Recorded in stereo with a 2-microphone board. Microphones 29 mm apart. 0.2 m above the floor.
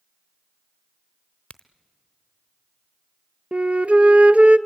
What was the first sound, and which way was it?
A crack, 35° left (ahead or behind).